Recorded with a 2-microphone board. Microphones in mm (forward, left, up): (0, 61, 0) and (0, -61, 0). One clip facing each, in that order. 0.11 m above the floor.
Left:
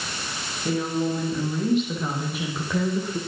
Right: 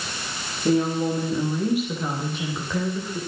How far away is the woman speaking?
About 6 m.